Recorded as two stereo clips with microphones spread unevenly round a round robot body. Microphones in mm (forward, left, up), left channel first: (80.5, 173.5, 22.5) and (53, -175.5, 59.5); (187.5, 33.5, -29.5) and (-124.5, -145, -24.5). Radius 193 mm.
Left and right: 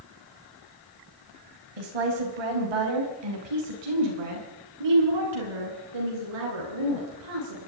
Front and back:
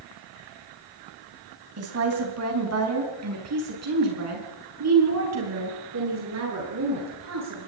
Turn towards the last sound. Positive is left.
turn(degrees=-105)